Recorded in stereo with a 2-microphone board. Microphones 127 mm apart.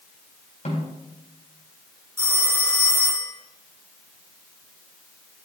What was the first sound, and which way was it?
A snare drum, 65° left (ahead or behind).